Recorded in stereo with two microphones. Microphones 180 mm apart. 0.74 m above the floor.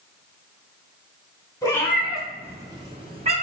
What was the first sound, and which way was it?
A cat meowing, 20° left (ahead or behind).